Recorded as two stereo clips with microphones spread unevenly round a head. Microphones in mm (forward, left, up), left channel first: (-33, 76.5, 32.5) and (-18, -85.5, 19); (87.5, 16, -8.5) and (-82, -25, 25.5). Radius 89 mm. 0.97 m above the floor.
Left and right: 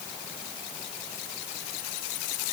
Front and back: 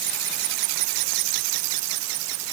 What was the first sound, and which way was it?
Only background noise.